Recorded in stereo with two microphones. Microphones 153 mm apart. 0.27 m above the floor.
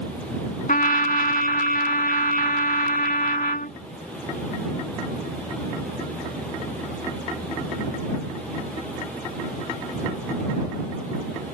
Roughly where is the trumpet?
Left.